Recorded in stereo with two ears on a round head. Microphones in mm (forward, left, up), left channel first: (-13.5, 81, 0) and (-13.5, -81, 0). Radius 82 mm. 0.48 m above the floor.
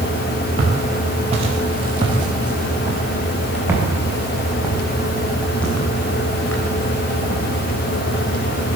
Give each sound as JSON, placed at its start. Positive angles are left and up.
{"t": 0.6, "sound": "footsteps", "side_deg": -40, "distance_m": 8.0}